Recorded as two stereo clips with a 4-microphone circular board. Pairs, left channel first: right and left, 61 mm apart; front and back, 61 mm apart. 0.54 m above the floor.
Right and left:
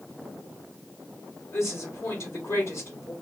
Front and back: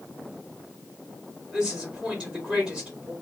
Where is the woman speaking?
110° right, 1.3 m.